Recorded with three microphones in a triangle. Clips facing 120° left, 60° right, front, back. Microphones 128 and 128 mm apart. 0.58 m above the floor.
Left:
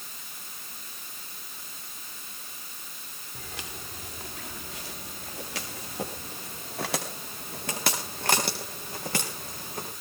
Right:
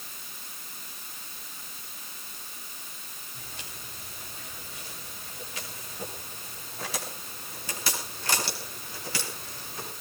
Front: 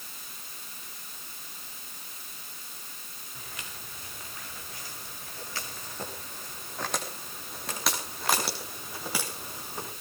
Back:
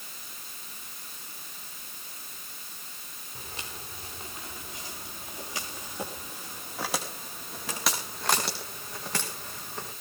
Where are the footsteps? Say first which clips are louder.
Left 6 dB, back 3 dB; 120° left, 4.5 m; by 9.9 s 80° left, 5.5 m.